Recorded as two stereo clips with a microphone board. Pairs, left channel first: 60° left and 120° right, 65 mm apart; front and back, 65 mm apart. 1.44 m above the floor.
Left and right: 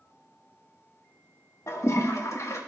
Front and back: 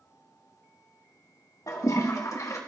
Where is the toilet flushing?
25° left, 1.5 m.